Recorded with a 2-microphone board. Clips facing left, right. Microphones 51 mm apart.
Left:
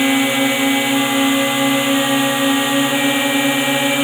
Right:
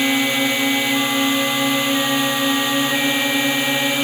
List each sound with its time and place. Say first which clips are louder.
0.0 s a drone: left 3 dB; 15° left (ahead or behind)